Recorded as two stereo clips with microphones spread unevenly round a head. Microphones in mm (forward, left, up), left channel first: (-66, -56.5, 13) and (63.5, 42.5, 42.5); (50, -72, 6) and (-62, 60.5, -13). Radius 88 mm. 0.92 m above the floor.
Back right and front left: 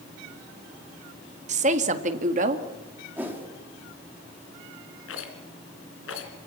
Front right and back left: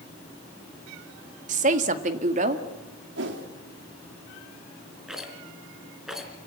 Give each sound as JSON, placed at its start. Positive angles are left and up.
{"t": 1.5, "sound": "a woman speaking", "azimuth_deg": 90, "distance_m": 1.5}
{"t": 3.2, "sound": "a whoosh", "azimuth_deg": 120, "distance_m": 2.5}
{"t": 5.1, "sound": "a rattle", "azimuth_deg": -140, "distance_m": 3.0}